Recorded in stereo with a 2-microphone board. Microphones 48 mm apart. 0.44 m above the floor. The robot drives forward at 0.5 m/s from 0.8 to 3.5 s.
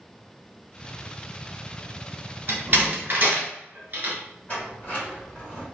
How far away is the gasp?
No gasp in this recording.